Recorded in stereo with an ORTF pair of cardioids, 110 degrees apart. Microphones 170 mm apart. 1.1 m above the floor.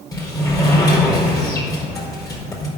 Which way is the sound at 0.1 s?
20° left.